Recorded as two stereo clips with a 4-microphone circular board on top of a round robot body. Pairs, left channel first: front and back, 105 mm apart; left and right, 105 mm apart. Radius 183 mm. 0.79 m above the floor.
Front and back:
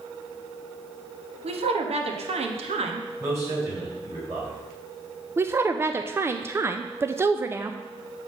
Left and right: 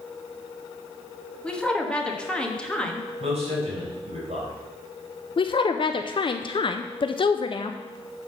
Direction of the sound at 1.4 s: 170° left.